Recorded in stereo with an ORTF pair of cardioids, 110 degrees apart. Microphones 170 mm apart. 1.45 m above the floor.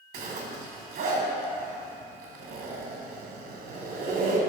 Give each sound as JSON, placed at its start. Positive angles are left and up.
{"t": 0.1, "sound": "a zipper", "azimuth_deg": -55, "distance_m": 2.5}